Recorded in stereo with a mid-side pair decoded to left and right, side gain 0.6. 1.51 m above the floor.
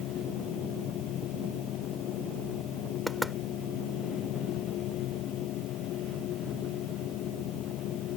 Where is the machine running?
60° left.